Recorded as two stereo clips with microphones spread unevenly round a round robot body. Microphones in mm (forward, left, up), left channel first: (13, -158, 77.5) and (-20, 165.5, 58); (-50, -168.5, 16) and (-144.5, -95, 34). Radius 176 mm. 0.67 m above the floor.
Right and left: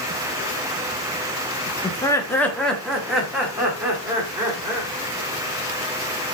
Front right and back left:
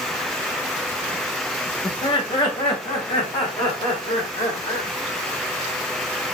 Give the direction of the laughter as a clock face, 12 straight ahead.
12 o'clock.